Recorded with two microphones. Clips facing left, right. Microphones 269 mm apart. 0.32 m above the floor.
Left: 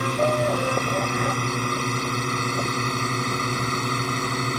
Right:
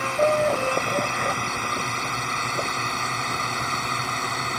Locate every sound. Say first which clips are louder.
0.0 s a drone: right 1 dB; 40° left (ahead or behind); by 4.6 s 35° left (ahead or behind)